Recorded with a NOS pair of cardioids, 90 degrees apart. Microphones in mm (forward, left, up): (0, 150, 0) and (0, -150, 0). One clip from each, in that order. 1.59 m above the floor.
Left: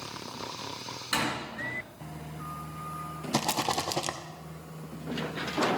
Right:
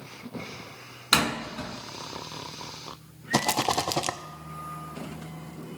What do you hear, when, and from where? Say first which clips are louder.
1.1 s a door slam: right 6 dB; 60° right, 2 m
3.3 s a rattle: right 4 dB; 15° right, 0.6 m